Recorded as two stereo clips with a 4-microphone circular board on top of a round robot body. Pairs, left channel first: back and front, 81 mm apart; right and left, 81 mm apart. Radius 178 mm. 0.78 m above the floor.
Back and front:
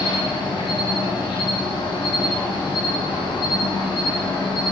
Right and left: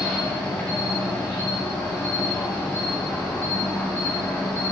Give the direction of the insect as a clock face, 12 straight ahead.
6 o'clock.